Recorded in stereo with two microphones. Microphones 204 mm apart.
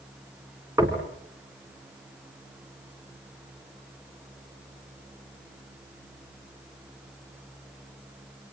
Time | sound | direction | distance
0.8 | knocking | 15° right (ahead or behind) | 3.5 m